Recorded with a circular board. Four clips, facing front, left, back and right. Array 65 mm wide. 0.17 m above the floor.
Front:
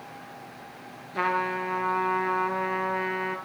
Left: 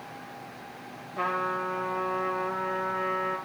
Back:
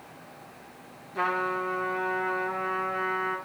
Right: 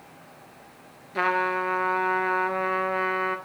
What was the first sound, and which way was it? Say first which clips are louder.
A trumpet: right 5 dB, front 1 dB; 70° right.